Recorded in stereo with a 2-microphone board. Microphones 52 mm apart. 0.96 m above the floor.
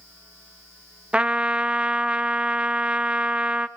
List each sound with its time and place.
1.1 s a trumpet: 20° right (ahead or behind), 1.0 m